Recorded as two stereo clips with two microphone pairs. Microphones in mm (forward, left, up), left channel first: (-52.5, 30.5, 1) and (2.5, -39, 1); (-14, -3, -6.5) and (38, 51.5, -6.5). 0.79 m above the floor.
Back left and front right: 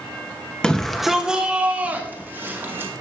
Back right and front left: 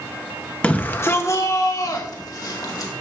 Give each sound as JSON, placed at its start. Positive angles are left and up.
{"t": 0.6, "sound": "a shout", "azimuth_deg": -170, "distance_m": 1.0}